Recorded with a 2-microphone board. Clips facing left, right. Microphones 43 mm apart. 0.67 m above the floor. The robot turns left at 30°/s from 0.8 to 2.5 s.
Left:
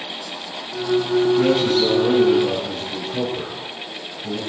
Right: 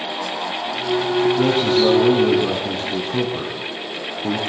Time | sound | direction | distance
1.4 | a man speaking | 20° right | 5.5 m